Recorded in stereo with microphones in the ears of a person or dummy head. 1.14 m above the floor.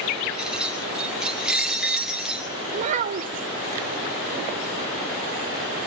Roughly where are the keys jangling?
Centre.